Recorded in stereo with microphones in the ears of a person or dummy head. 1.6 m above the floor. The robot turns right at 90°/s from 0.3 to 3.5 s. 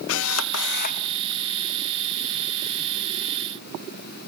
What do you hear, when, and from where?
0.1 s a camera shutter: 80° left, 0.6 m; by 1.1 s 150° left, 0.6 m